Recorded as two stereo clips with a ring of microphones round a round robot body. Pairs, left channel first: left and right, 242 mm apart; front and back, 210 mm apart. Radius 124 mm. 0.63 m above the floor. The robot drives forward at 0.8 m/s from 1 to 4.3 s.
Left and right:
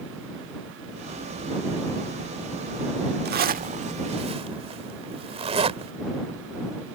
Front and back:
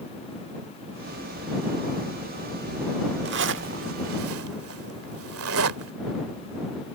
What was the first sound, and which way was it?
A zipper, 140° right.